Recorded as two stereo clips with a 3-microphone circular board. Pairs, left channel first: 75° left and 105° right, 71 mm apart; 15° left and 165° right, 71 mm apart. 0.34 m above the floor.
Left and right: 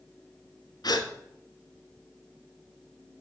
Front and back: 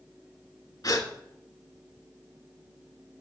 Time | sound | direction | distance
0.8 | a gasp | 50° left | 1.2 m